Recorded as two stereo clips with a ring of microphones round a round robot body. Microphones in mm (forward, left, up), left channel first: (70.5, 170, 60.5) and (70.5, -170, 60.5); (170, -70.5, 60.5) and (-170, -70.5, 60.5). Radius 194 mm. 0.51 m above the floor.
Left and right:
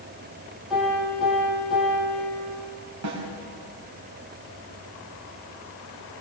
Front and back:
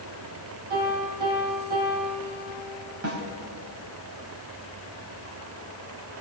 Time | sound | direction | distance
0.7 | a piano | straight behind | 9.5 m
3.0 | a snare drum | 135° right | 4 m